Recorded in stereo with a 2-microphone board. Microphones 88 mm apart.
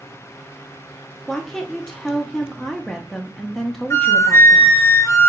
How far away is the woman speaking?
About 0.7 m.